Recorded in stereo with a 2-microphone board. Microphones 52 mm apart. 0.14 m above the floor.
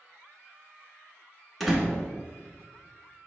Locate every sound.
1.6 s a door slam: centre (ahead or behind), 0.9 m